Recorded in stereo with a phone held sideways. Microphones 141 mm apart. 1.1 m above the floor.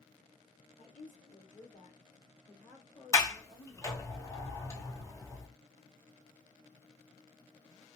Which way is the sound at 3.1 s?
20° left (ahead or behind).